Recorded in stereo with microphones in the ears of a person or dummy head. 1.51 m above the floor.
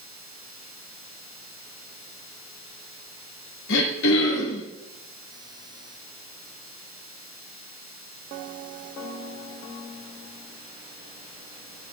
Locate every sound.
3.7 s throat clearing: 70° left (ahead or behind), 3 m